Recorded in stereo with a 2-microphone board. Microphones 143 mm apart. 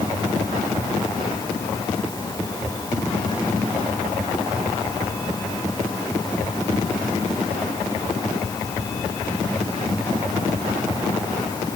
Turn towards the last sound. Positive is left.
No sound to turn to.